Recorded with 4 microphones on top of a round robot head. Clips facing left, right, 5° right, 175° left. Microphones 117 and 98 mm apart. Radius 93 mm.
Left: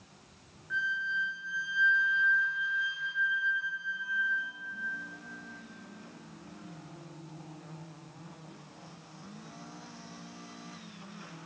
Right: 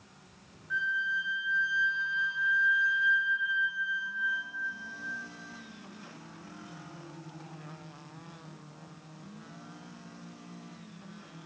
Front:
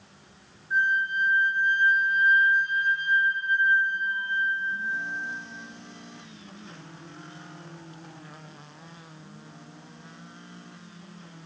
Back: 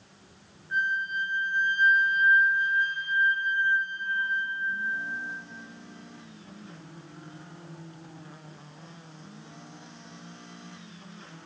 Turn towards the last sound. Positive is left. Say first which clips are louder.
# right 1 dB, front 4 dB
turn(degrees=180)